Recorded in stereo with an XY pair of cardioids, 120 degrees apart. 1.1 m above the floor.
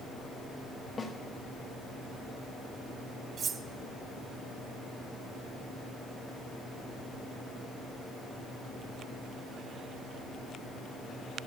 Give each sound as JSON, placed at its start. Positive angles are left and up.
{"t": 1.0, "sound": "a snare drum", "azimuth_deg": 30, "distance_m": 1.2}
{"t": 3.4, "sound": "cutlery clinking", "azimuth_deg": -45, "distance_m": 0.6}